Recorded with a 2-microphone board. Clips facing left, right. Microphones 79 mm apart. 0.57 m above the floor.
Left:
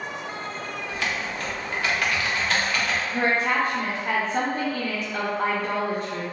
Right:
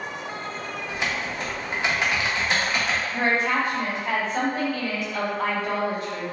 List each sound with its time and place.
0.9 s typing on a keyboard: 20° right (ahead or behind), 0.5 m
3.1 s a woman speaking: 35° left (ahead or behind), 0.8 m